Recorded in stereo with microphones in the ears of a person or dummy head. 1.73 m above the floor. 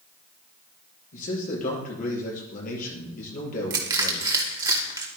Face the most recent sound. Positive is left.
turn(degrees=-20)  # may be behind; listen again after turning